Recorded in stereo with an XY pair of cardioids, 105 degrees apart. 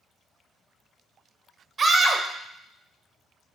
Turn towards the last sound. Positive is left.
turn(degrees=-40)